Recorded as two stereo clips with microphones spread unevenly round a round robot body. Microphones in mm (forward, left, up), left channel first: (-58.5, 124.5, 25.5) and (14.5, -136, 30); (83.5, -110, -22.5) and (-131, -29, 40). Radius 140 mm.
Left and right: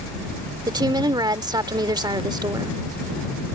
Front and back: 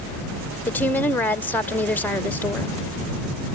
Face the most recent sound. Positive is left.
turn(degrees=-20)